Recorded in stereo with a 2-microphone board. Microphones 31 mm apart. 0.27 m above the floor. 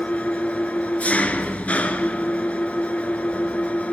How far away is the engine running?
About 1.2 m.